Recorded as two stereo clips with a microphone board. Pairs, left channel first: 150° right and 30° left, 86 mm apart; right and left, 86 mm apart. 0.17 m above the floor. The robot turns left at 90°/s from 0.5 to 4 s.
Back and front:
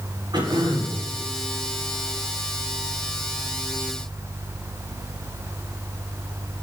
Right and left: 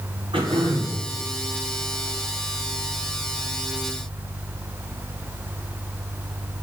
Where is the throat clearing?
70° left, 7 m; by 1.0 s 25° left, 7 m.